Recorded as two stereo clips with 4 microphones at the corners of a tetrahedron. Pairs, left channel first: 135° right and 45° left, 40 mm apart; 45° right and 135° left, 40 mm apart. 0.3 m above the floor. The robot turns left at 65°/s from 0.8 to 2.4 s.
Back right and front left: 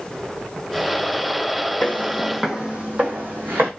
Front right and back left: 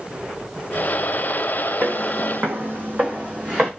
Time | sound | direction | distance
1.8 | footsteps | 170° right | 0.9 m